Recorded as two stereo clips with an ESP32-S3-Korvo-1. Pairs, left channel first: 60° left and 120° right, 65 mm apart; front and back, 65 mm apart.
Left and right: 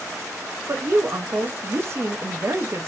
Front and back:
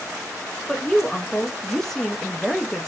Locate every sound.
0.7 s a woman speaking: 85° right, 0.5 m